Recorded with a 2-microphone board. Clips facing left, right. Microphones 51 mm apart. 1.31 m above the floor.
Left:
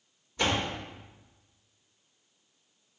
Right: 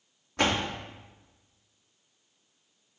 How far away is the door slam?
About 2 m.